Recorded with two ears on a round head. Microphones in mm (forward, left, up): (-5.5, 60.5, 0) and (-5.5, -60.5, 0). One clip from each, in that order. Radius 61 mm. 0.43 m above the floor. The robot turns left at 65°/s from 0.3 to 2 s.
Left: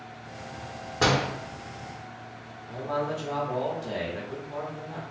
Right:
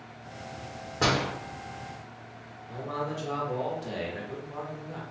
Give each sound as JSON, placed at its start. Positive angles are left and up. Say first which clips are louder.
{"t": 1.0, "sound": "a door slam", "louder": "left 2 dB", "side_deg": 20, "distance_m": 0.7}
{"t": 2.7, "sound": "a man speaking", "louder": "left 4 dB", "side_deg": 0, "distance_m": 0.8}